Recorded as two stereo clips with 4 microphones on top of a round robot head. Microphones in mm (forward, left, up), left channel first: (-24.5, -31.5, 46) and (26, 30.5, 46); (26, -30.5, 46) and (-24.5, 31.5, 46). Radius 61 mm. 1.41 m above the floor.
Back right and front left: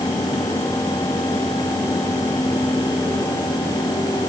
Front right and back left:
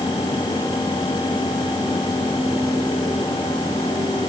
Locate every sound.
Only background noise.